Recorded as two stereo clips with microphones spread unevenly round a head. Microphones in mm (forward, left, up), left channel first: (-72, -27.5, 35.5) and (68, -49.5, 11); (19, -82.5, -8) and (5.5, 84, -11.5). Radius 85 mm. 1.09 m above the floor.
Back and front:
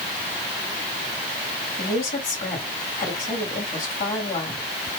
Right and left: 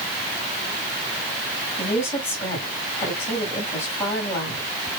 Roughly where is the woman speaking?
Behind.